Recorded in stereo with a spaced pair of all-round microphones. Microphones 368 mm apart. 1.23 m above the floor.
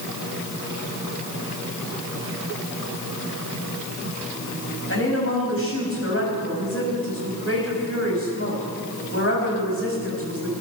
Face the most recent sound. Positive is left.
turn(degrees=35)  # may be behind; listen again after turning